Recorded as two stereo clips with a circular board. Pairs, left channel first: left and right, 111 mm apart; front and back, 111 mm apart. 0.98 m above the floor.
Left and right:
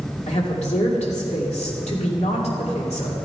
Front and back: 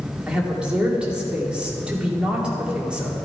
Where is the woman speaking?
100° left, 2.5 m.